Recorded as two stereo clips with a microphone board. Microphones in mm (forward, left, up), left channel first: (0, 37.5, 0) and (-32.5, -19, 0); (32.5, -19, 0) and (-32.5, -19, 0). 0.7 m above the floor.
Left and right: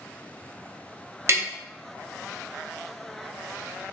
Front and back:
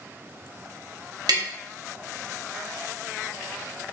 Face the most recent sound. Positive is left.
turn(degrees=-165)